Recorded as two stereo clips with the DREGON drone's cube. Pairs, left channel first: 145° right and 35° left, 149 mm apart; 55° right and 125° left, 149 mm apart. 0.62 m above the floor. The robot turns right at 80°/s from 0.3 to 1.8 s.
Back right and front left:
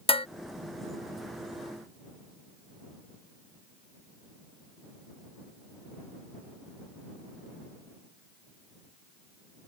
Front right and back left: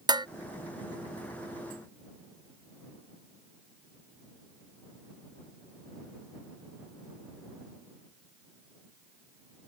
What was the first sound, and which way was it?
Dishes clattering, straight behind.